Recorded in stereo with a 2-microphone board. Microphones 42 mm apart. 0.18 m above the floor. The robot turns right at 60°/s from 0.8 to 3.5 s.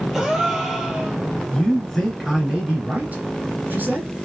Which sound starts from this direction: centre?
A gasp, at 0.1 s.